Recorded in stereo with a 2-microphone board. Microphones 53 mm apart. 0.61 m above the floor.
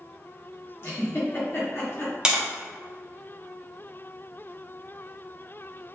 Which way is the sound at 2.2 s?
20° right (ahead or behind).